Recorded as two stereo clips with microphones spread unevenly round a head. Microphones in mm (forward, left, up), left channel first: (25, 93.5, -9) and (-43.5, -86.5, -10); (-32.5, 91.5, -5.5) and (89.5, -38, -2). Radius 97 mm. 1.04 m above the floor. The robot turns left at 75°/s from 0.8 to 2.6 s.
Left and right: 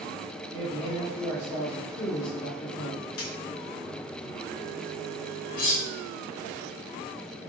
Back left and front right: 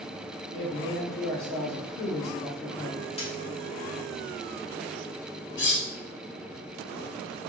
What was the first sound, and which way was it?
A man speaking, 165° right.